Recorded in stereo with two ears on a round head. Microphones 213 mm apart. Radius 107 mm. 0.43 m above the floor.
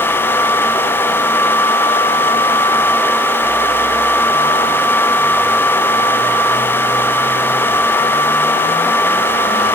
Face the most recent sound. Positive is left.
No sound to turn to.